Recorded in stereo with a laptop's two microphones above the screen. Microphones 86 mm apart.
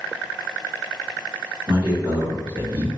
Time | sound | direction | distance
1.7 | a man speaking | 70° right (ahead or behind) | 1.4 m